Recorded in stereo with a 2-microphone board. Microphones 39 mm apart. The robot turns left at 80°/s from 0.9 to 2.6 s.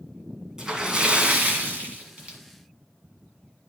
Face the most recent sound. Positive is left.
turn(degrees=-155)